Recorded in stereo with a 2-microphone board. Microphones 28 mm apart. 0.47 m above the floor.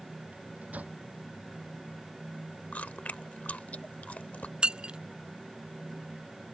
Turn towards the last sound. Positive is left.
turn(degrees=-40)  # may be behind; listen again after turning